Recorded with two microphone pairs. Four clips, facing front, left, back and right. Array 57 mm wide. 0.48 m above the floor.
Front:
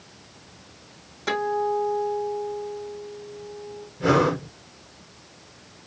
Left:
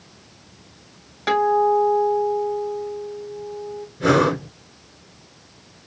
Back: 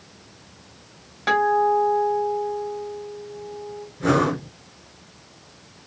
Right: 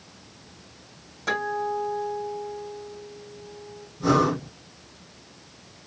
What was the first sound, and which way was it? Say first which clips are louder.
A guitar: left 10 dB, back 6 dB; 135° left.